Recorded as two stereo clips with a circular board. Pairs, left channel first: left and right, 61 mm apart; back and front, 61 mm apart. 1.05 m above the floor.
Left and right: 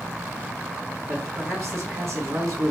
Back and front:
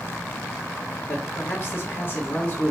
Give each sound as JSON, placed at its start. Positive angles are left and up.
{"t": 1.1, "sound": "a man speaking", "azimuth_deg": -130, "distance_m": 2.0}